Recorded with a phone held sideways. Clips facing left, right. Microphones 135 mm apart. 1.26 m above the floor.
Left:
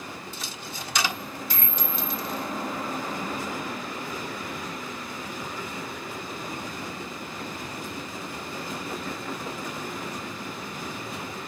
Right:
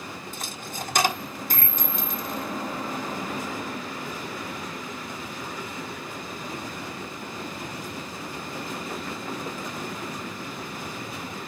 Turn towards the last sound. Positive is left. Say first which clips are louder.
# right 2 dB
turn(degrees=-50)  # may be behind; listen again after turning